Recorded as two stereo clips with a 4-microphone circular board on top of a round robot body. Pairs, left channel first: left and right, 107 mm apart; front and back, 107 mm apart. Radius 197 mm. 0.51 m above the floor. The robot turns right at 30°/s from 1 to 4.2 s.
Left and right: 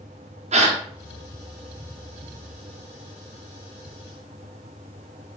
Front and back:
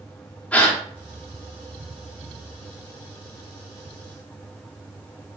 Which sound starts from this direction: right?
A gasp, at 0.5 s.